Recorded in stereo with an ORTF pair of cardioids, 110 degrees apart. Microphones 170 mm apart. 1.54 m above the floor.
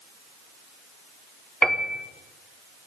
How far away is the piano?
About 1.2 m.